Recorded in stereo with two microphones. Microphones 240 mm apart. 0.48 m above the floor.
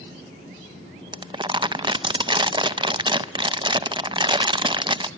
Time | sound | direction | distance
1.1 | crumpling | 20° right (ahead or behind) | 0.5 m